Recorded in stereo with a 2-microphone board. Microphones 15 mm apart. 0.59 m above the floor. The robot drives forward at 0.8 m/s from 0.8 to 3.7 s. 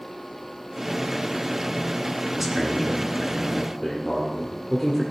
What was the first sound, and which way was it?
A man speaking, 15° right (ahead or behind).